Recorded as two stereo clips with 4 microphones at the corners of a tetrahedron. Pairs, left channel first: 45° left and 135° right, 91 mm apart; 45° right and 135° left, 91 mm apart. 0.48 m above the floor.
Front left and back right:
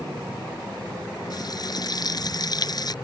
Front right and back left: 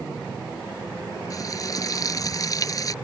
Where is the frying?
5° left.